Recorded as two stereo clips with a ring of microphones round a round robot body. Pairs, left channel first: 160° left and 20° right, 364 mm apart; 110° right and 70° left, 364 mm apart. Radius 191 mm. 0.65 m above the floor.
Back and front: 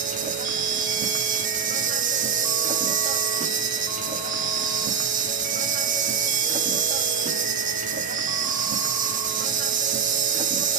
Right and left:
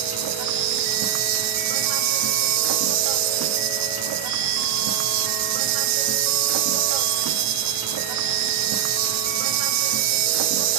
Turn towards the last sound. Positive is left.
turn(degrees=45)